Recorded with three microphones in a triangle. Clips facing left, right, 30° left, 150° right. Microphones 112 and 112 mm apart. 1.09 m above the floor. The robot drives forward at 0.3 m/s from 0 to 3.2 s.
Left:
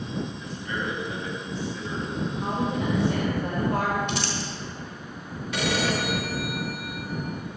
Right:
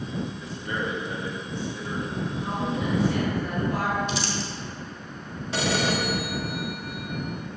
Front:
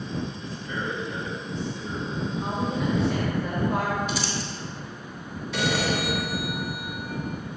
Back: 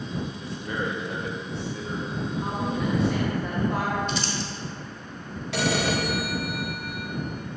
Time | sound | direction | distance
0.4 | a man speaking | 150° right | 1.6 m
2.4 | a woman speaking | 115° left | 1.3 m
4.1 | crumpling | 115° left | 1.4 m
5.5 | a phone ringing | 150° right | 1.1 m